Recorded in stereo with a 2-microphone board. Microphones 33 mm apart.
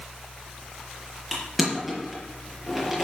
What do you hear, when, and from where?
1.3 s crushing: 5° right (ahead or behind), 5.5 m